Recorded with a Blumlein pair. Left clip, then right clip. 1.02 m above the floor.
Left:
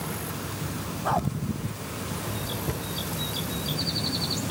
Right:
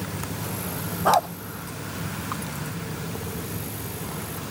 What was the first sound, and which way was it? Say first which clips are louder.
A dog barking: right 7 dB; 70° right.